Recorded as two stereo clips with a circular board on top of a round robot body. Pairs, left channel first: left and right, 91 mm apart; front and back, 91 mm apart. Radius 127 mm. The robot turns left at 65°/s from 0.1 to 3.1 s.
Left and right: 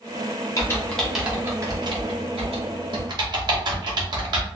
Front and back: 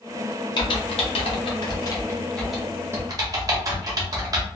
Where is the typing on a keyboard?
35° left, 0.8 m; by 4.5 s 130° right, 0.8 m.